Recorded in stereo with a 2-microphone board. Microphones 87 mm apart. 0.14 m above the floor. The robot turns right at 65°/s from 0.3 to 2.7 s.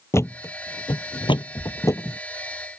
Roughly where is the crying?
I don't hear crying.